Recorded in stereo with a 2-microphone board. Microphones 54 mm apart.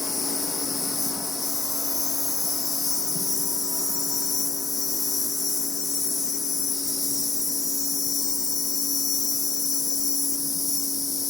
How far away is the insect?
About 2.5 m.